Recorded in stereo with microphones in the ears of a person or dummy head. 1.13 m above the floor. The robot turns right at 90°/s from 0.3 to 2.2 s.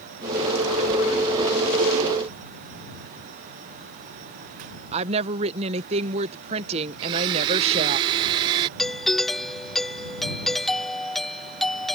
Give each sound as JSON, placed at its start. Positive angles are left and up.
{"t": 4.9, "sound": "a woman speaking", "side_deg": -30}
{"t": 7.0, "sound": "a blender", "side_deg": -25}
{"t": 8.8, "sound": "a doorbell", "side_deg": 0}